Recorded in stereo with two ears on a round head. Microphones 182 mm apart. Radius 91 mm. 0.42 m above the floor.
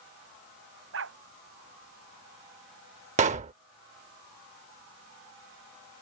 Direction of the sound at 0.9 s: 65° right (ahead or behind).